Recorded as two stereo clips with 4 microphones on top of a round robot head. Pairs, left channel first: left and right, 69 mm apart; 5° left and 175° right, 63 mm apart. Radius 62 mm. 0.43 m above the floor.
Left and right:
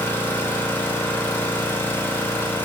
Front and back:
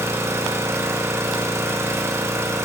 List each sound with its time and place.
0.0 s an engine running: 150° left, 1.8 m